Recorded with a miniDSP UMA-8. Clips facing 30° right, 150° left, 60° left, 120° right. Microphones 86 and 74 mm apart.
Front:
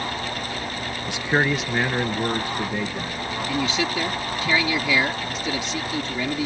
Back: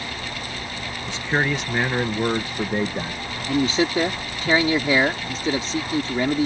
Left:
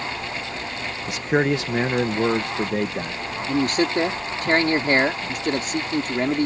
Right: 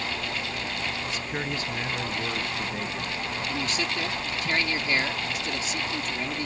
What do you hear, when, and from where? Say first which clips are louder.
1.1 s a man speaking: front 1 dB, left 10 dB; 40° left; by 3.2 s 100° left
3.5 s a man speaking: back 5 dB, left 12 dB; 95° left